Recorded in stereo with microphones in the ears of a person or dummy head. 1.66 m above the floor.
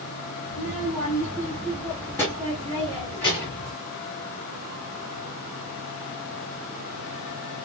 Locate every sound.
0.5 s a child speaking: 5° right (ahead or behind), 1.0 m; by 3.7 s 10° left (ahead or behind), 1.7 m